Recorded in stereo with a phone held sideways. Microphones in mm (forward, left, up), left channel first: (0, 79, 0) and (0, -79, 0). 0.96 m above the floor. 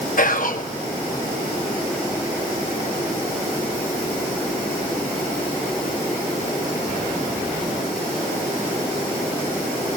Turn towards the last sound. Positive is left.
turn(degrees=60)  # may be behind; listen again after turning